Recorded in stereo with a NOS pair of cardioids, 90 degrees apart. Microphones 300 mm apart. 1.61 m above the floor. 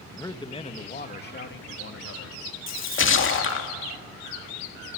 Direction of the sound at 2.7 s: 45° left.